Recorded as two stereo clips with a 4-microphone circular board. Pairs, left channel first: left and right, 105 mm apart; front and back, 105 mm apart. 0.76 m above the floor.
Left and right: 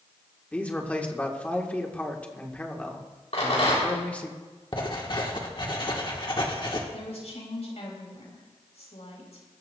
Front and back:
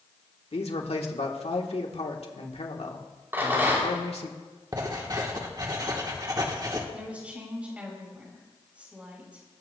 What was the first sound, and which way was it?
A man speaking, 15° left.